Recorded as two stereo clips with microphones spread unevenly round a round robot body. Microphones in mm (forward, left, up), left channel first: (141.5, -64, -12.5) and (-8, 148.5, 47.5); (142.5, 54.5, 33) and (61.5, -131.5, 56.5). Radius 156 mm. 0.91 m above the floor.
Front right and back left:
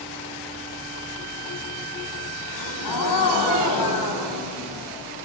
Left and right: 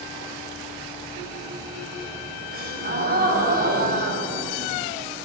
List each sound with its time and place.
2.5 s a gasp: 75° right, 4.5 m